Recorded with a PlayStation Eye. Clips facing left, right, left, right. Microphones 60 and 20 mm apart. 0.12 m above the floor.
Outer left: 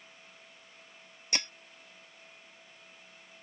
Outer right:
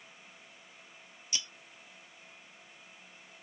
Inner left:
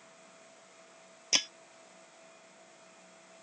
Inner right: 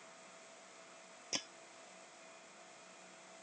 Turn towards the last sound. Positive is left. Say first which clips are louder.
# outer left 6 dB, inner left 13 dB
turn(degrees=60)  # may be behind; listen again after turning